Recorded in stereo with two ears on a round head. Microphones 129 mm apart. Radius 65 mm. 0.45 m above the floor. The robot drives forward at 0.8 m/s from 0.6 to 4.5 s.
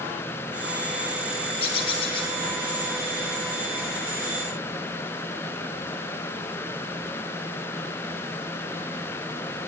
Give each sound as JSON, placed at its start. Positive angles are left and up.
{"t": 1.6, "sound": "a bird", "side_deg": 40, "distance_m": 8.0}